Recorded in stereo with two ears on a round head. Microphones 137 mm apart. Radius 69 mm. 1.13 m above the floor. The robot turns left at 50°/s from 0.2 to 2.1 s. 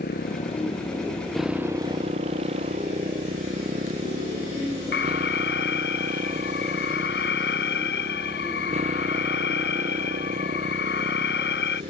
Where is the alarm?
70° left (ahead or behind).